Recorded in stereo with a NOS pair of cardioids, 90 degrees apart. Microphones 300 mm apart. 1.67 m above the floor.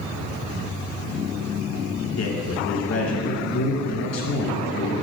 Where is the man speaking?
55° left, 2.5 m.